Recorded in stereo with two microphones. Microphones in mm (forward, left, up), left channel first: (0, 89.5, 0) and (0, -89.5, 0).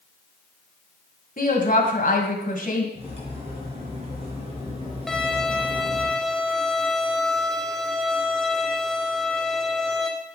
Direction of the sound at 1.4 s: 55° left (ahead or behind).